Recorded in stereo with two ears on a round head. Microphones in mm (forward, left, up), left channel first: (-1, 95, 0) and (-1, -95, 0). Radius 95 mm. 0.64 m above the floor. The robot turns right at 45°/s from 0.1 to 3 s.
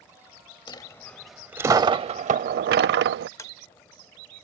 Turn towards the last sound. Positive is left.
turn(degrees=15)  # may be behind; listen again after turning